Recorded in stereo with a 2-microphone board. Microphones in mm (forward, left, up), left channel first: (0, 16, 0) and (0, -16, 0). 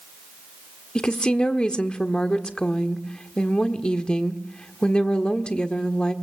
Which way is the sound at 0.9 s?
30° left (ahead or behind).